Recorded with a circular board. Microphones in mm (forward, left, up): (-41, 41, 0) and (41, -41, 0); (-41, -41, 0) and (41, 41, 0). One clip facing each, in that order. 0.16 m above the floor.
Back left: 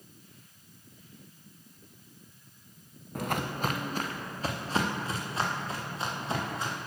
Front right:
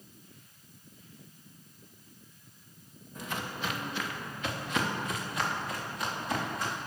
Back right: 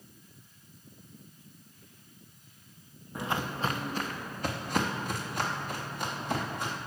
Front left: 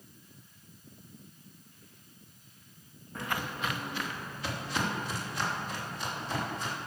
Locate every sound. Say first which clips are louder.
3.1 s footsteps: back left 6 dB, back right 3 dB; 150° left, 0.7 m; by 6.8 s 165° right, 3.5 m